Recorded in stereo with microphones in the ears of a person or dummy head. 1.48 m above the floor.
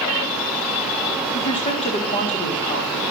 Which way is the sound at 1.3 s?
35° left (ahead or behind).